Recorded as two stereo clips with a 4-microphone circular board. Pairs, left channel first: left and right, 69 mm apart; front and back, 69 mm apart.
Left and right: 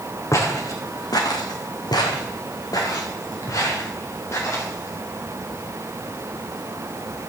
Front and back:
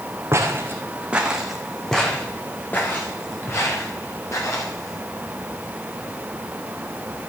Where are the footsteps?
130° left, 2.5 m; by 5.0 s 40° left, 5 m.